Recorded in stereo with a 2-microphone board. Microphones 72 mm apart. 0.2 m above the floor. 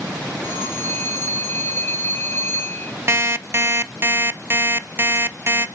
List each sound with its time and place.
0.4 s a phone ringing: 35° left (ahead or behind), 1.9 m
3.1 s an alarm clock: 35° right (ahead or behind), 0.5 m